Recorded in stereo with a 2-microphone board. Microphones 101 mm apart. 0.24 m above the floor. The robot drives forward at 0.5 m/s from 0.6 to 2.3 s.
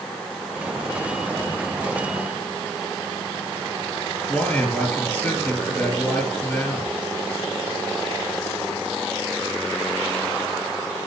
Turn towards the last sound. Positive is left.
turn(degrees=15)  # may be behind; listen again after turning